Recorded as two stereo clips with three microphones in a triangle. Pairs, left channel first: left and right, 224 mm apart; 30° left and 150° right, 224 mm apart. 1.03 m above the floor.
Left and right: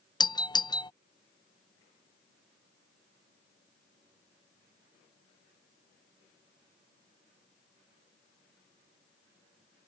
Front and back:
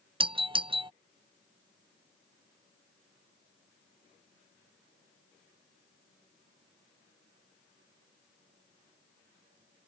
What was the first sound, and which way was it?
A doorbell, 155° left.